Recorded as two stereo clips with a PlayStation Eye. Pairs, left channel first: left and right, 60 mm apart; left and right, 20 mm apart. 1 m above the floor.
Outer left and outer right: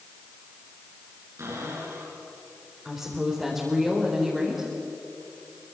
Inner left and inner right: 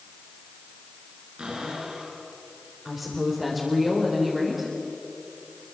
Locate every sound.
1.4 s a cupboard door: 50° right (ahead or behind), 9.5 m
2.9 s a woman speaking: 5° right (ahead or behind), 4.5 m